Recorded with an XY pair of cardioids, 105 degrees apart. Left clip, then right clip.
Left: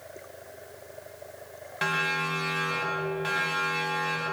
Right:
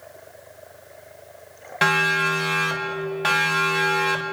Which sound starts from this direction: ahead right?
A siren, at 1.8 s.